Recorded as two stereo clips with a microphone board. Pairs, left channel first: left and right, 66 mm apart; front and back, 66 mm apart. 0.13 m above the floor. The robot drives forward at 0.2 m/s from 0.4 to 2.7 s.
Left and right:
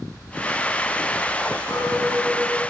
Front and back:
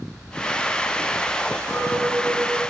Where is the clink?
160° right, 1.8 m.